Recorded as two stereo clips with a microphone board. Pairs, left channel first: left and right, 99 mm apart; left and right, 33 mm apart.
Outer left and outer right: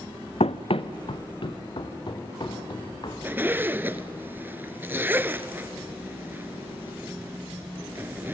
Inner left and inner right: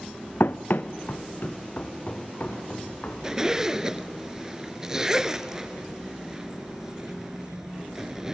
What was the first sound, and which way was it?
Running footsteps, 80° left.